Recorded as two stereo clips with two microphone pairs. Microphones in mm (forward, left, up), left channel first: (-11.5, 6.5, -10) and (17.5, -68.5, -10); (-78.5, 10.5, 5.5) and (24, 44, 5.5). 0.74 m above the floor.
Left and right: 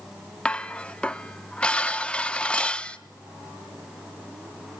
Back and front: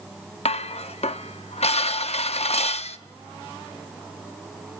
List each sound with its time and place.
0.5 s dishes clattering: 170° right, 0.6 m